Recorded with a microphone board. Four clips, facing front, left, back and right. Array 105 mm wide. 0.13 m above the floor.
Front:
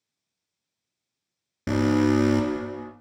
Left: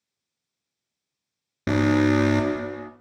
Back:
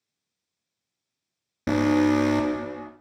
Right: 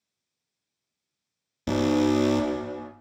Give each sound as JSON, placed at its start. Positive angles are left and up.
{"t": 1.7, "sound": "an alarm", "azimuth_deg": 100, "distance_m": 1.7}